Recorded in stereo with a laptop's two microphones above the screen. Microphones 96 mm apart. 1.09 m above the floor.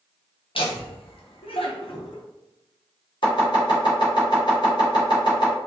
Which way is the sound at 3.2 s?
55° left (ahead or behind).